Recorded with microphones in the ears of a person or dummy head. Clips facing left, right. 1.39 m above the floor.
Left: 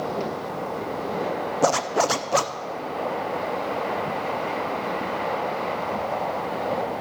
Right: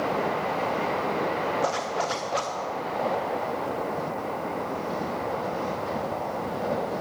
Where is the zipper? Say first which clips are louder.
Left 6 dB; 65° left (ahead or behind), 0.5 m.